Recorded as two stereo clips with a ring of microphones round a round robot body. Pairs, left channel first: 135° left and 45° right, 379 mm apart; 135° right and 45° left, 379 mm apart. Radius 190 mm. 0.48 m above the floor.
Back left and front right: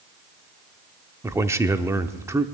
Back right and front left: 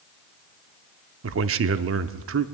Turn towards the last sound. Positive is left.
turn(degrees=35)